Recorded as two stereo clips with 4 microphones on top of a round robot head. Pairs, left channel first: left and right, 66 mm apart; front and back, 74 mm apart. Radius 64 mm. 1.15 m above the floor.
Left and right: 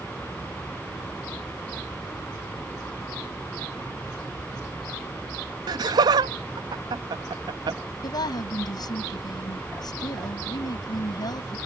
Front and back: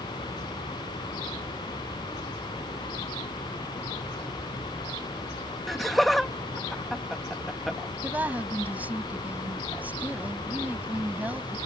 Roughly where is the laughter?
Right.